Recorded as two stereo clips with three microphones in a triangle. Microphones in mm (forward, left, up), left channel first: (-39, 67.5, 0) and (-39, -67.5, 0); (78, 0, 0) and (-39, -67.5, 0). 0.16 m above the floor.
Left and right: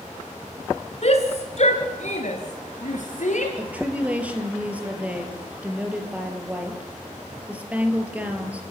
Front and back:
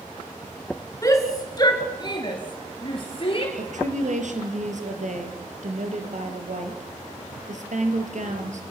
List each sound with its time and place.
1.0 s a shout: 90° left, 1.6 m; by 3.5 s 75° left, 3 m
3.6 s a woman speaking: 170° right, 3.5 m